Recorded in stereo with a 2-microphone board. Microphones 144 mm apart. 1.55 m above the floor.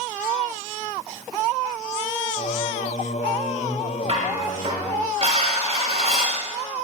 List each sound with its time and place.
2.4 s singing: 50° left (ahead or behind), 0.8 m
4.1 s dishes clattering: 40° right (ahead or behind), 6.5 m